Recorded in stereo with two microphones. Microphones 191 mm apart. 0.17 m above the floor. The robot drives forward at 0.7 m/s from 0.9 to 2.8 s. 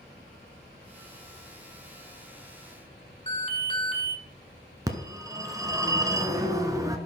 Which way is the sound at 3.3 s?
30° left (ahead or behind).